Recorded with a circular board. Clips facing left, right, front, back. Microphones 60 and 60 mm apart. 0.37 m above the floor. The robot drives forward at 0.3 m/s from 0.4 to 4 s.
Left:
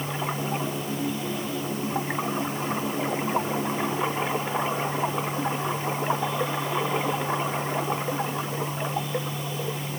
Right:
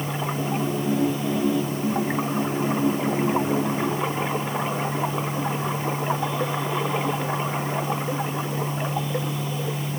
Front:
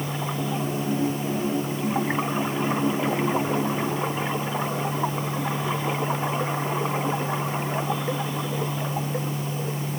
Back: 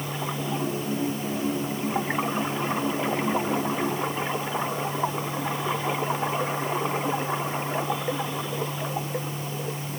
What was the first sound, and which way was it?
Only background noise.